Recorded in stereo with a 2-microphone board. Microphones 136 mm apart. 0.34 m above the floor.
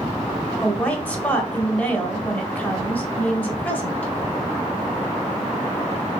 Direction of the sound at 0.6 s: 10° left (ahead or behind).